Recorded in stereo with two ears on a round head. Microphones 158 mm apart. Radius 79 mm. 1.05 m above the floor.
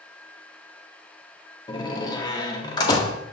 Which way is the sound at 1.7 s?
25° left (ahead or behind).